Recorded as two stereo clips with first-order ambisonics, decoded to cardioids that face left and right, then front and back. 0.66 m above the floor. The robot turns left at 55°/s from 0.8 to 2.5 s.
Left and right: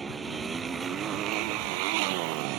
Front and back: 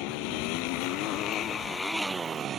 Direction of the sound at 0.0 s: 15° right.